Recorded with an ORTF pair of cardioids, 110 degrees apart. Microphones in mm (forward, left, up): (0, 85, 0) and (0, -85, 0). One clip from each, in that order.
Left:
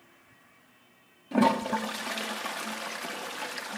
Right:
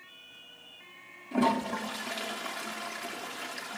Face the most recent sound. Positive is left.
turn(degrees=25)